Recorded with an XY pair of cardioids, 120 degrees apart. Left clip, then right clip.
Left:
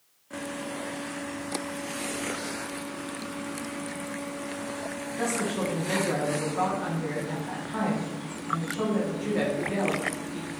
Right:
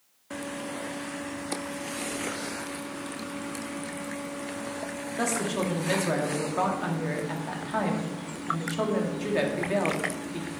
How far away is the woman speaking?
About 1.1 m.